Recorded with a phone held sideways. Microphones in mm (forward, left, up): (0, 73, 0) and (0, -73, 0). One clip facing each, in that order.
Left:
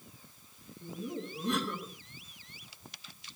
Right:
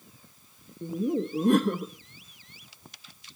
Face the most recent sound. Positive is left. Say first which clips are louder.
# right 12 dB
turn(degrees=-50)  # may be behind; listen again after turning